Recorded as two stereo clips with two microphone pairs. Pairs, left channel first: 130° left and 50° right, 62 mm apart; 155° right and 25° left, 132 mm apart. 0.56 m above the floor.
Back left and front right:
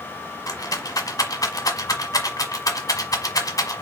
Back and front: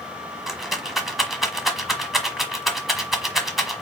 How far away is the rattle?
About 1.3 m.